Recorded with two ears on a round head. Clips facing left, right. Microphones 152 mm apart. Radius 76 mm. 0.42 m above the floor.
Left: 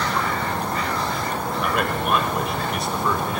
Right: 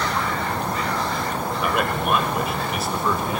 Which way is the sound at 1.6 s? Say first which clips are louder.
Right 1 dB; centre (ahead or behind).